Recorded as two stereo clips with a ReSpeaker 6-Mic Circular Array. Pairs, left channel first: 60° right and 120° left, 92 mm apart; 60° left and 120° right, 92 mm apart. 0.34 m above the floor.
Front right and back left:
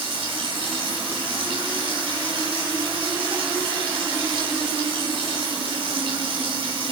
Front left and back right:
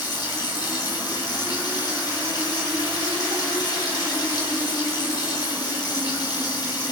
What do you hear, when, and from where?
0.0 s running water: 110° left, 8 m